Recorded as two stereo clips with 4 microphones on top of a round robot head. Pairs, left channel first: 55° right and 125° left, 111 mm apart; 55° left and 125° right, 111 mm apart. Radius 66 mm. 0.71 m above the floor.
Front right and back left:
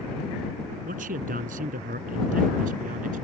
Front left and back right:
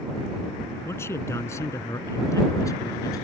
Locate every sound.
0.8 s a man speaking: 125° left; by 3.2 s 115° left